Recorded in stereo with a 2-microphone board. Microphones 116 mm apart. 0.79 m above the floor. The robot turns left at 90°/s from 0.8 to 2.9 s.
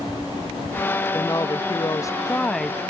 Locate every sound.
1.1 s a woman speaking: 135° left, 0.6 m; by 2.8 s 10° right, 0.6 m